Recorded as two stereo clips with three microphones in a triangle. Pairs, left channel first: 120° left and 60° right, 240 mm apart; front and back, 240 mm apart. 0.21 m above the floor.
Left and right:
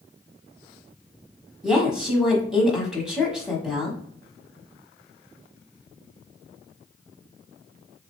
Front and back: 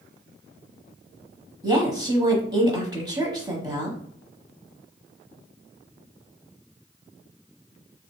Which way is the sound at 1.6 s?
140° right.